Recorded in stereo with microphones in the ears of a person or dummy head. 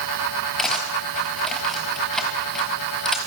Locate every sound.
0.6 s cutlery clinking: 5° left (ahead or behind), 4.5 m